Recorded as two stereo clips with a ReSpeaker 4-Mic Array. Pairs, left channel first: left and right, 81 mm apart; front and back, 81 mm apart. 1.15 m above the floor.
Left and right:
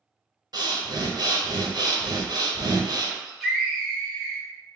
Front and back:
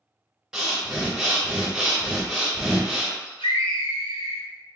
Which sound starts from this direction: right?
Breathing, at 0.5 s.